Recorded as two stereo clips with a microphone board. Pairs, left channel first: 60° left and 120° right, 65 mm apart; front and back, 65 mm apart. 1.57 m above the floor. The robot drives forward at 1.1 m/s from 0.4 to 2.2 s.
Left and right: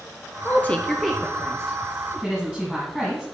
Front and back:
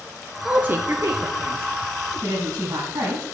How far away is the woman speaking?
About 0.7 m.